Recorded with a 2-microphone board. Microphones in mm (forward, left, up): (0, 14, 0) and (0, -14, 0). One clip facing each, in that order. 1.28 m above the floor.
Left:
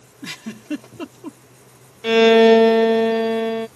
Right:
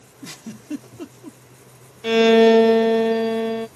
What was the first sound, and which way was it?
A giggle, 45° left (ahead or behind).